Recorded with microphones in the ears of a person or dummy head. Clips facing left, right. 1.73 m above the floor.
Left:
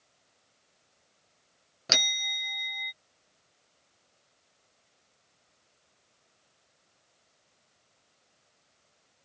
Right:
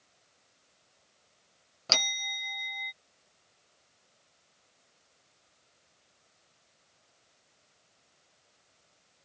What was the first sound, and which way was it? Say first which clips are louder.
A bell: left 1 dB; 20° left (ahead or behind).